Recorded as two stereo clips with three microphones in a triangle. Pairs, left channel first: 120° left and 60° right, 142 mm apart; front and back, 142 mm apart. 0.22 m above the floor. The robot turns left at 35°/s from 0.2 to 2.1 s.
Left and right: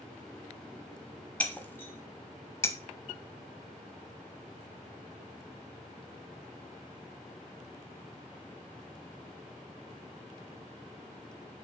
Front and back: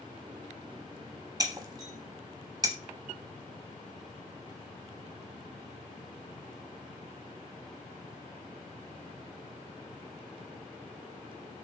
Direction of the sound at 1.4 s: 170° right.